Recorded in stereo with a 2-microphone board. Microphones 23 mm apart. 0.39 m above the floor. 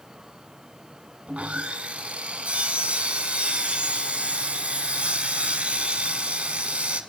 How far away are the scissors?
No scissors in this recording.